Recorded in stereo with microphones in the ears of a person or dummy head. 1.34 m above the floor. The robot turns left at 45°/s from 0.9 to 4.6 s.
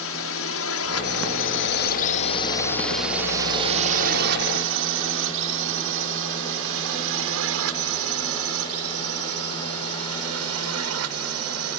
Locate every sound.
0.0 s a drone: 65° left (ahead or behind); by 11.8 s 75° right (ahead or behind)